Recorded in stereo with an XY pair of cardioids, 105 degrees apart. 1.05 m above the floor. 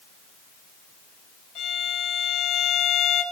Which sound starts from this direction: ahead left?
A violin, at 1.6 s.